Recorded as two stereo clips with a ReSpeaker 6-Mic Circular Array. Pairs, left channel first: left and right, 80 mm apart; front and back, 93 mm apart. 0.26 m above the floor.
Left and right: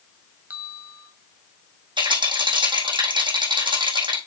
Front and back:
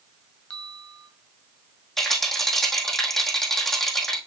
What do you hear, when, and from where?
0.5 s a bell: 60° right, 1.6 m
2.0 s a rattle: 90° right, 4 m